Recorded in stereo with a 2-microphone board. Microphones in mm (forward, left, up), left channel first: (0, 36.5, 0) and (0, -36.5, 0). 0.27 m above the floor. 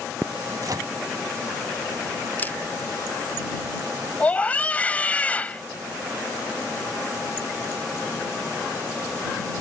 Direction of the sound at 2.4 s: 25° left (ahead or behind).